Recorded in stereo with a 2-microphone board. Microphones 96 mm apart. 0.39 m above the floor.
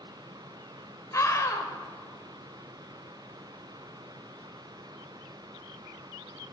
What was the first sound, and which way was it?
A scream, 35° left (ahead or behind).